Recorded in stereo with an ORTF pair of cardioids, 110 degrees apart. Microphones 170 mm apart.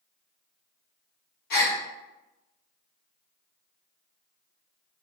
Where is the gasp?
65° left, 1.5 m.